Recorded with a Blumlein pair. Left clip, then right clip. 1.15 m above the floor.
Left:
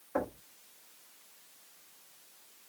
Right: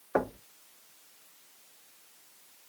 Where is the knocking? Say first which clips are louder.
Right 5 dB; 60° right, 0.8 m.